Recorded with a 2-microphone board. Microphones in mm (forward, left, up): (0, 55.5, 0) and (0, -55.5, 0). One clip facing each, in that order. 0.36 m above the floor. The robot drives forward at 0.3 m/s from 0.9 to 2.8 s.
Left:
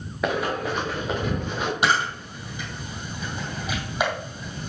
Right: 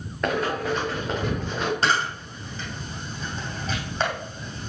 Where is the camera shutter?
15° left (ahead or behind), 2 m; by 4.7 s 10° left (ahead or behind), 2.5 m.